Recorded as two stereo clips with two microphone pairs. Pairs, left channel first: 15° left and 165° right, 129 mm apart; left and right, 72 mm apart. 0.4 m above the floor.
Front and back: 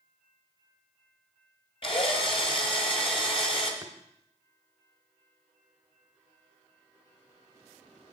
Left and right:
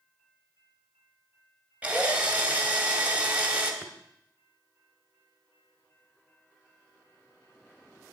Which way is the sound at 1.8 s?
25° right.